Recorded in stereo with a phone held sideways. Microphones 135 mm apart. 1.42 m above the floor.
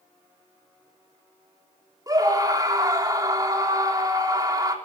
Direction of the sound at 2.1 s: 30° right (ahead or behind).